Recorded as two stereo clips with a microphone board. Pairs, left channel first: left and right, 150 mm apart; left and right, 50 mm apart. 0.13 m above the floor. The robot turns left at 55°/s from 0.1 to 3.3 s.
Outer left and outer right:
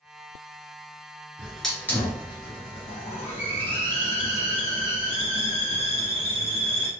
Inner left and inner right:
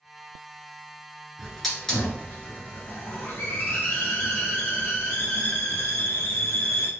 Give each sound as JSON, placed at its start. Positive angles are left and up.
{"t": 1.4, "sound": "a hiss", "azimuth_deg": -170, "distance_m": 1.4}